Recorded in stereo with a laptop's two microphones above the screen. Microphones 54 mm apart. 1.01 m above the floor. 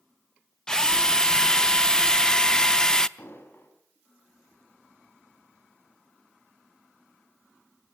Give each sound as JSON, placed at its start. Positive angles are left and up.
{"t": 0.7, "sound": "a drill", "side_deg": 10, "distance_m": 0.5}
{"t": 3.2, "sound": "an explosion", "side_deg": 45, "distance_m": 4.5}